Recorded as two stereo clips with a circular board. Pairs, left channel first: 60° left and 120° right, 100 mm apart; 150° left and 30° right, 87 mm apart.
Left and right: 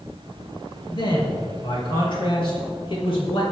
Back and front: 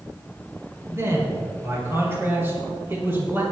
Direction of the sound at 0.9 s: 30° left.